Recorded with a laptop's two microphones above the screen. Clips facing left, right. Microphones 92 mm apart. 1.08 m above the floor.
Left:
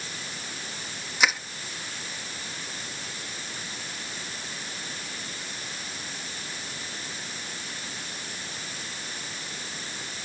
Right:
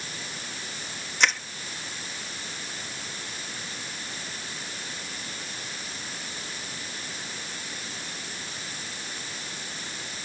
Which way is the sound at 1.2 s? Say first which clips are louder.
Even; 5° left (ahead or behind).